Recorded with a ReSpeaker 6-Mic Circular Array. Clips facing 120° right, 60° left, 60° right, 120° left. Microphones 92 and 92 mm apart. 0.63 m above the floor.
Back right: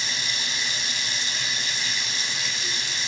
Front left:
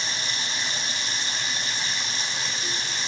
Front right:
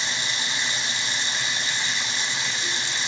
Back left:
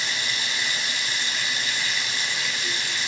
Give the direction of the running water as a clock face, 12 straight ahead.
12 o'clock.